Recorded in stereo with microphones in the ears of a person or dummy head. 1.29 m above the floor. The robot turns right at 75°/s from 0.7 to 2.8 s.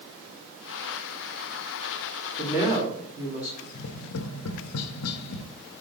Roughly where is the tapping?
Left.